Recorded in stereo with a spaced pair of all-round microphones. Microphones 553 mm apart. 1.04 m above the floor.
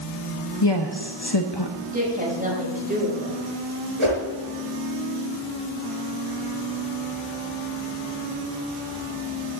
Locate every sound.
0.6 s a woman speaking: 45° left (ahead or behind), 1.0 m
1.9 s a woman speaking: 15° right (ahead or behind), 6.5 m
4.0 s a whoosh: 60° right (ahead or behind), 4 m